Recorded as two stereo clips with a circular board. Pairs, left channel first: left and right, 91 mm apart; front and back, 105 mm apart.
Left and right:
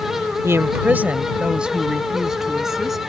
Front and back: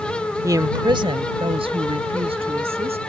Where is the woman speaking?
135° right; by 3.0 s 175° right.